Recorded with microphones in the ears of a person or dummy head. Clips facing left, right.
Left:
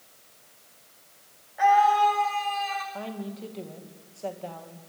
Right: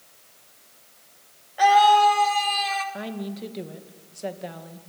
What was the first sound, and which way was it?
A scream, 50° right (ahead or behind).